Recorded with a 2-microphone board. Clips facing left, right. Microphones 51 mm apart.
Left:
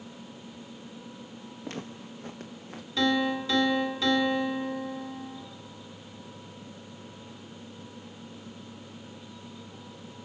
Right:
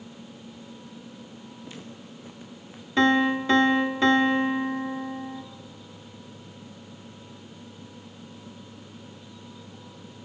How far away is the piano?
About 1.9 m.